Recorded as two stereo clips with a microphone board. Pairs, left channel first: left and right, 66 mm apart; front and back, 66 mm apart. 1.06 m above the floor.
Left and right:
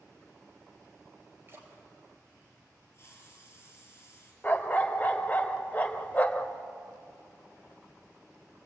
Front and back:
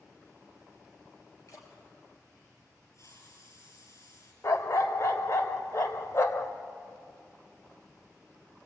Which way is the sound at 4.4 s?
30° left.